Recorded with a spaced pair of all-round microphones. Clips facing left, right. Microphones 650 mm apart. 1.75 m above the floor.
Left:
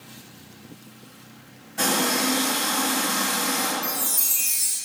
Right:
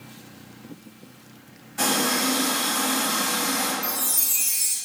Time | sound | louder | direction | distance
1.8 | a running tap | even | 55° left (ahead or behind) | 1.5 m
3.8 | a chime | left 1 dB | 15° left (ahead or behind) | 1.0 m